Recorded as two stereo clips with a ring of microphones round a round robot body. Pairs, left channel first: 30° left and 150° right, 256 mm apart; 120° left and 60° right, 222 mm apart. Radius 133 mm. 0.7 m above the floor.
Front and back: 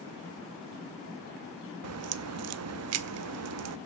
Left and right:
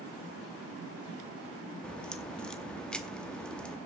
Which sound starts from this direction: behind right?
A crack, at 1.8 s.